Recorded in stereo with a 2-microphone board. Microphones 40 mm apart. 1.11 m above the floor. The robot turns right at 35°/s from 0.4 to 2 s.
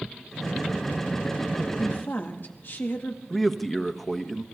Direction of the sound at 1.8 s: 45° left (ahead or behind).